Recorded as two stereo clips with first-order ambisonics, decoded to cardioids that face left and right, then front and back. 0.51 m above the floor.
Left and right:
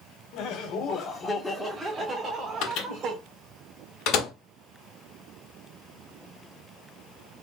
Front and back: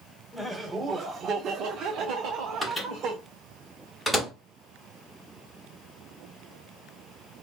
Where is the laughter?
85° left, 1.0 m; by 3.2 s 145° right, 1.7 m.